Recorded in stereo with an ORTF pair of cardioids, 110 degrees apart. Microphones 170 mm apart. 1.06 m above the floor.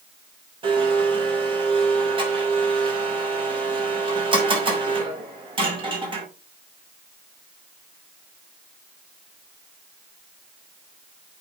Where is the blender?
30° right, 5.5 m.